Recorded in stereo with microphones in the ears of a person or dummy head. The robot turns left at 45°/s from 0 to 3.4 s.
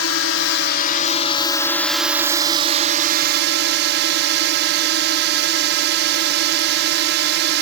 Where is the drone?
95° left; by 7.6 s 60° right.